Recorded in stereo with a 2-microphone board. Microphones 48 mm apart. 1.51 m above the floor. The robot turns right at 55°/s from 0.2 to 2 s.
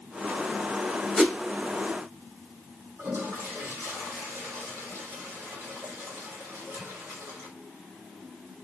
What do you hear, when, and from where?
1.2 s a whoosh: 5° right (ahead or behind), 2 m; by 1.4 s 5° left (ahead or behind), 2 m
3.0 s a toilet flushing: 45° right (ahead or behind), 2 m